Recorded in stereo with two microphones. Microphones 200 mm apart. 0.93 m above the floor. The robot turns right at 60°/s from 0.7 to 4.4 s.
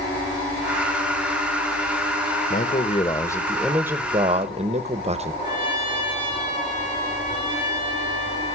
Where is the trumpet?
25° left (ahead or behind), 6.5 m.